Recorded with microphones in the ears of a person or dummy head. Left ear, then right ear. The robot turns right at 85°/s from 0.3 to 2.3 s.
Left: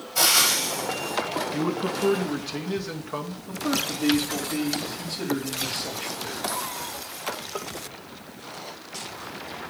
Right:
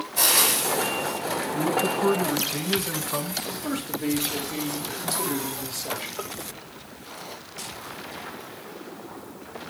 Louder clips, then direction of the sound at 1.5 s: Right 3 dB; 130° left.